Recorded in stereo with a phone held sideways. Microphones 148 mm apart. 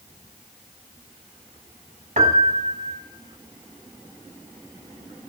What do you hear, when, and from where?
2.2 s a piano: 55° right (ahead or behind), 0.7 m